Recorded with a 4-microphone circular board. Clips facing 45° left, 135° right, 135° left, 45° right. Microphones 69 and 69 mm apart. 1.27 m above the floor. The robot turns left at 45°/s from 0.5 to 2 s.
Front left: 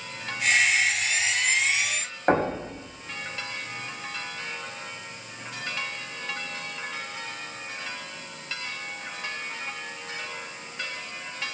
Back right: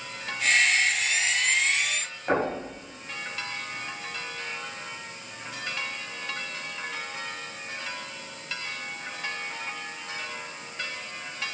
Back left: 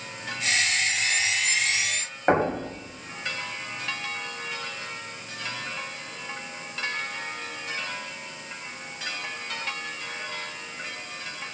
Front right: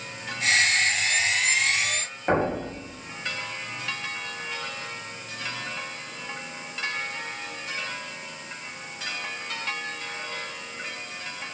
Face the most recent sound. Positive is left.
turn(degrees=85)